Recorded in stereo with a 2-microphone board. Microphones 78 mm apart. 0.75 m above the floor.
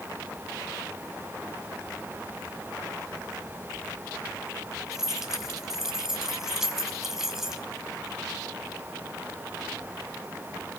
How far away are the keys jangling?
About 4 m.